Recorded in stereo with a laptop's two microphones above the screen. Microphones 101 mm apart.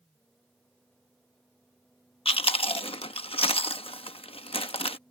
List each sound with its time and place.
0.0 s a fan: 5° left (ahead or behind)
2.2 s chewing: 65° left (ahead or behind)